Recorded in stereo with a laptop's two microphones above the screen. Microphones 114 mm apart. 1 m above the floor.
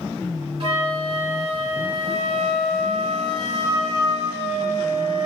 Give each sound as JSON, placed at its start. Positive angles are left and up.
{"t": 0.6, "sound": "a flute", "side_deg": -55, "distance_m": 2.5}